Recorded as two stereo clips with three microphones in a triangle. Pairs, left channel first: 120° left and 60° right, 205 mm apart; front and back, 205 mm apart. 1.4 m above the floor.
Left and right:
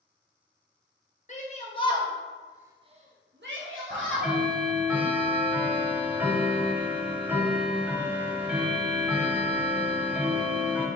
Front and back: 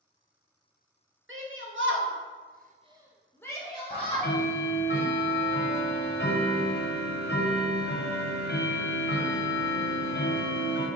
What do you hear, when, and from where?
1.3 s a shout: 170° left, 1.1 m; by 4.4 s 55° right, 1.1 m
3.9 s ticking: 25° left, 0.7 m